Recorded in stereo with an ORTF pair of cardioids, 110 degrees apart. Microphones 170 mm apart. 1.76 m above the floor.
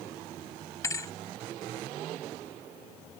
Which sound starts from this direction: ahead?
A thud, at 0.8 s.